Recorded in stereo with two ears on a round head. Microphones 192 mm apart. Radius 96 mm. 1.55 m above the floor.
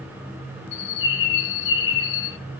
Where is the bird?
55° left (ahead or behind), 0.7 m.